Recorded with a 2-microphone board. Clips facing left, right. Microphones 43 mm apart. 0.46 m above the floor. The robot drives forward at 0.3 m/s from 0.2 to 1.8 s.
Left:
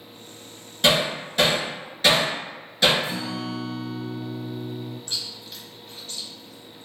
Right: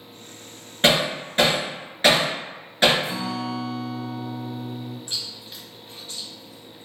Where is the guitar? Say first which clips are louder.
Right 2 dB; 60° right (ahead or behind), 1.3 m.